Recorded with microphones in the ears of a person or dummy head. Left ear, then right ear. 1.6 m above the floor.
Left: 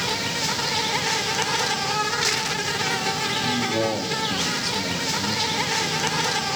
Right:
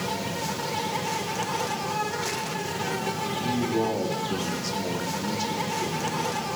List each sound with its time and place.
0.0 s an insect: 50° left (ahead or behind), 1.1 m
3.4 s a man speaking: 55° left (ahead or behind), 4 m